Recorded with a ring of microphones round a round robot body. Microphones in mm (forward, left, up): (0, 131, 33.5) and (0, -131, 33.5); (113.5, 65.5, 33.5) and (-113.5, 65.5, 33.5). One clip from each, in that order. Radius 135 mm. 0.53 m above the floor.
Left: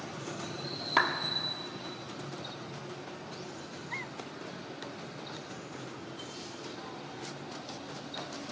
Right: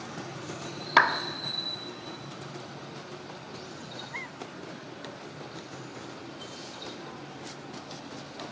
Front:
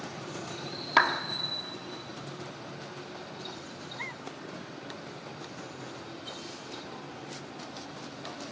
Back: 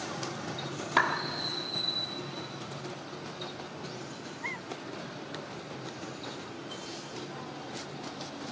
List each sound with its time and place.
1.0 s a clap: 50° right, 0.6 m